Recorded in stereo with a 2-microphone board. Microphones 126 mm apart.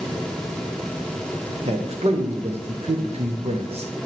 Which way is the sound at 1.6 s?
55° right (ahead or behind).